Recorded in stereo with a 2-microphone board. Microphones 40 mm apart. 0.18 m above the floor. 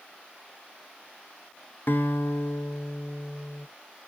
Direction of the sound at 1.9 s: 55° left (ahead or behind).